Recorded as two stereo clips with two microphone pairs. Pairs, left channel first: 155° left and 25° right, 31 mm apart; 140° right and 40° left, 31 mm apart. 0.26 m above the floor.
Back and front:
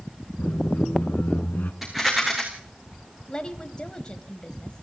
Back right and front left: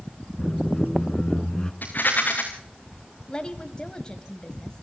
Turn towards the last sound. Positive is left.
turn(degrees=-175)